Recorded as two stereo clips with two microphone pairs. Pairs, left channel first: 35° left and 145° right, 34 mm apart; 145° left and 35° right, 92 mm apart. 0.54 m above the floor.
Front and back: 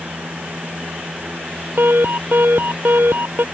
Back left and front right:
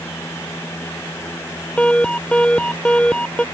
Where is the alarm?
135° right.